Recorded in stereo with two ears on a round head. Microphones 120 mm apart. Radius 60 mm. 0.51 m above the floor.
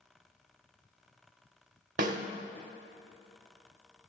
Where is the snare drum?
65° right (ahead or behind), 0.7 m.